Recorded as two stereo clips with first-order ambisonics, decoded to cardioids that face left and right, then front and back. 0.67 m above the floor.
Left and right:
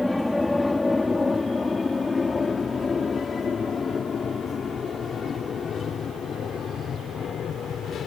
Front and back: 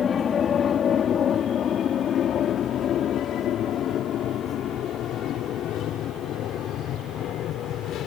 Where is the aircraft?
10° left; by 8.1 s 35° left.